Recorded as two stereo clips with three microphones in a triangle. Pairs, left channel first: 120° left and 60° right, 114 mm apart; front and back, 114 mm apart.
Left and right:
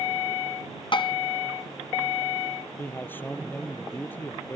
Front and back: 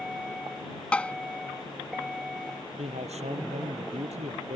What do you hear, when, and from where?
0.9 s tapping: 80° left
2.8 s a man speaking: 165° right